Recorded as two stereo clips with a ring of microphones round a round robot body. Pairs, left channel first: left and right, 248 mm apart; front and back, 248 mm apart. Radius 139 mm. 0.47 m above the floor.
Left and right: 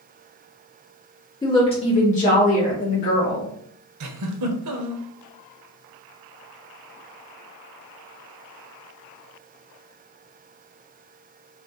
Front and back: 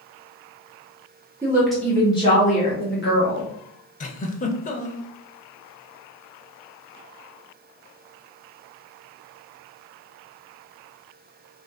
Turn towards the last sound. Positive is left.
turn(degrees=-60)